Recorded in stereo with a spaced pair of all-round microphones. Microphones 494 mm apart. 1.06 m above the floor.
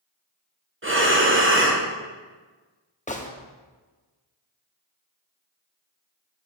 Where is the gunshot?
15° left (ahead or behind), 0.6 m.